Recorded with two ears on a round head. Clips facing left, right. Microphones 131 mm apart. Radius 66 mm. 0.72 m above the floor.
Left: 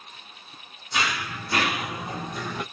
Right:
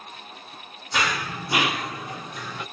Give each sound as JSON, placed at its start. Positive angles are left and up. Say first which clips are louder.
{"t": 0.9, "sound": "running footsteps", "louder": "right 2 dB", "side_deg": -45, "distance_m": 1.0}